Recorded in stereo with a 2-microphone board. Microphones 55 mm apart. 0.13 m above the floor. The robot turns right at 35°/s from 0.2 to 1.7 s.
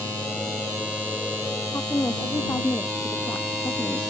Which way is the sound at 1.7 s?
65° left (ahead or behind).